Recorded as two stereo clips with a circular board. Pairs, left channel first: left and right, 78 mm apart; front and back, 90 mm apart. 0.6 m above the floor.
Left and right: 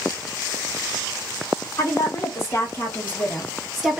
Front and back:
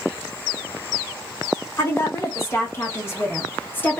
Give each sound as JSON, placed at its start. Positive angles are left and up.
{"t": 1.8, "sound": "a woman speaking", "azimuth_deg": 50, "distance_m": 1.5}